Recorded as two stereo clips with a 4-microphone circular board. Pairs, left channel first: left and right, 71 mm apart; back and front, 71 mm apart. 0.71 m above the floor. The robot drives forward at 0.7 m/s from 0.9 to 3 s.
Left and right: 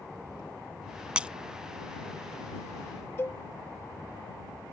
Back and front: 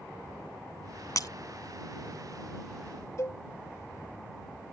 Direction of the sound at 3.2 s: 140° left.